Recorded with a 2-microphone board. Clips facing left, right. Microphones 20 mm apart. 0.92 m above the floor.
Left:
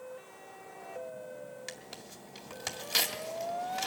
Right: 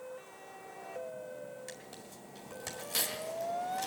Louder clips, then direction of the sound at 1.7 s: Left 2 dB; 40° left (ahead or behind).